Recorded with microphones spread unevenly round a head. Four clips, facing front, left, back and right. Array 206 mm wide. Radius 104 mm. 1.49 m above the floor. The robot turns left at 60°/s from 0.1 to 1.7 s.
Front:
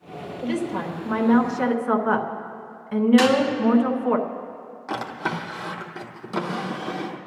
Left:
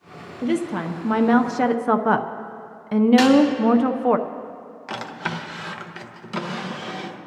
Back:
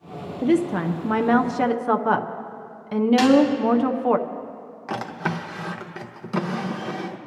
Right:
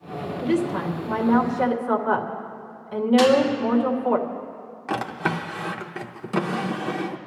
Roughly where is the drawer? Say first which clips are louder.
Right 4 dB, even; right.